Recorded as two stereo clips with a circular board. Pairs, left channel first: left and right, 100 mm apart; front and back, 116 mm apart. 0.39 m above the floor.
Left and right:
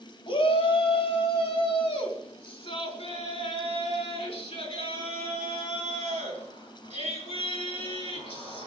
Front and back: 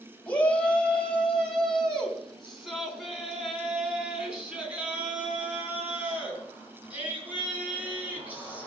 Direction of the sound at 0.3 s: 75° left.